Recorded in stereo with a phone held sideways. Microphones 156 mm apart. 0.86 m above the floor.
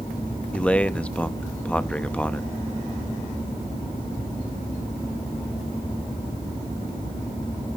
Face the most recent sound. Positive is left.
turn(degrees=10)  # may be behind; listen again after turning